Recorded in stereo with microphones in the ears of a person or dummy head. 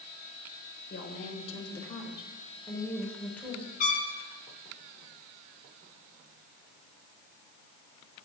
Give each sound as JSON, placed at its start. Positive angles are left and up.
{"t": 0.9, "sound": "a woman speaking", "side_deg": 40, "distance_m": 4.0}
{"t": 3.8, "sound": "a trumpet", "side_deg": 45, "distance_m": 2.5}